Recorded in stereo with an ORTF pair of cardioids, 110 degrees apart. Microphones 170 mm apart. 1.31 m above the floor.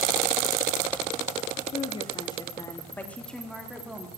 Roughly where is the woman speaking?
Ahead left.